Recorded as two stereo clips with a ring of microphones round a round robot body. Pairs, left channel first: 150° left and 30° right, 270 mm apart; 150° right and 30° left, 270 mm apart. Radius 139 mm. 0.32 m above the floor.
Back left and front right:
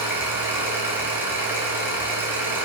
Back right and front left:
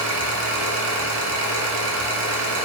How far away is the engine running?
About 1.5 m.